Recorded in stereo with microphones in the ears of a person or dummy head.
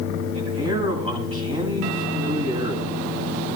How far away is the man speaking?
About 9 m.